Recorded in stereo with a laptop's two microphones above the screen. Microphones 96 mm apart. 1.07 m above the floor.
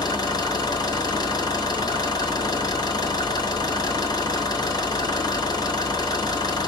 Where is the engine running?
45° left (ahead or behind), 1.4 m.